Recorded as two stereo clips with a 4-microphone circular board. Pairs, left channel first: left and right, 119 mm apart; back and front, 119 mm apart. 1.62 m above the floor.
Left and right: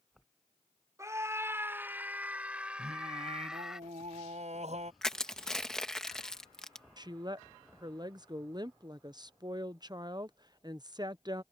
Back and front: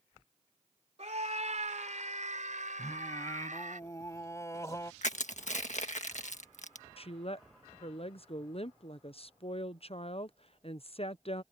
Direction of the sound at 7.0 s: 145° right.